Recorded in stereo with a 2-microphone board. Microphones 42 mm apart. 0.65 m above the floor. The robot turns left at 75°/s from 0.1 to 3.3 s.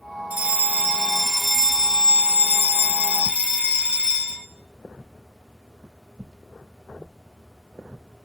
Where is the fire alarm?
85° right, 2 m; by 4.5 s 50° left, 2 m.